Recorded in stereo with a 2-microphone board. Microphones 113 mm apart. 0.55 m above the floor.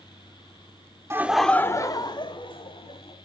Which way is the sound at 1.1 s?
25° right (ahead or behind).